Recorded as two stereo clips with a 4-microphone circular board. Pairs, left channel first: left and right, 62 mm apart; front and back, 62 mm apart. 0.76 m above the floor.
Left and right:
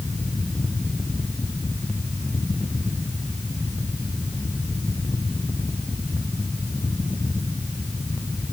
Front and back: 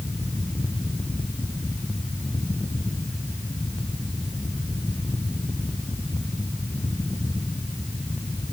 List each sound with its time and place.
Only background noise.